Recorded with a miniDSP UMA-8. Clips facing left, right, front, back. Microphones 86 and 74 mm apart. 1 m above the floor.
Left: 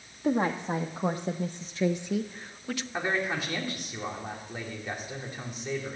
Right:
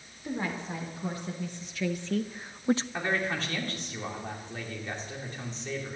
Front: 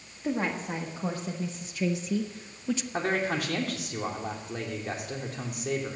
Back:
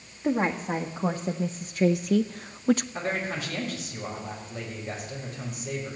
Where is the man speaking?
10° left, 3.5 m.